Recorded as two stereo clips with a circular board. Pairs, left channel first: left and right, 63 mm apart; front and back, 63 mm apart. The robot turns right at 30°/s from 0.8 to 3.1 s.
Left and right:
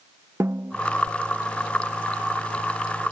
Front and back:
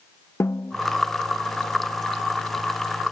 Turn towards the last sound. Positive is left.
turn(degrees=25)